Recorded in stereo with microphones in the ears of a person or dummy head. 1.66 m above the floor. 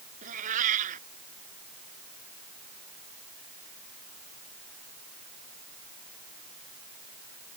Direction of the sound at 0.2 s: 45° right (ahead or behind).